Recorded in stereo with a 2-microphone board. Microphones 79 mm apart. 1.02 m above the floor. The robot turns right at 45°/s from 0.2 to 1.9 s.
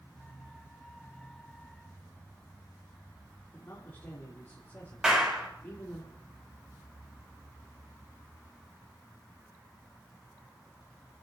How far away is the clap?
About 3.5 m.